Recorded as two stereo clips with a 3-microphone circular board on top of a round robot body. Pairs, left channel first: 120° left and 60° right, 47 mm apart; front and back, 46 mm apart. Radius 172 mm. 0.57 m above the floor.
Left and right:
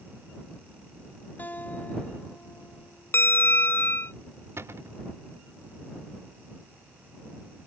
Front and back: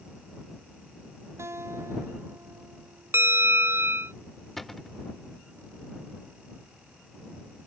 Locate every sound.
1.4 s a guitar: 170° left
3.1 s a bell: 155° left
4.6 s a cupboard door: 85° right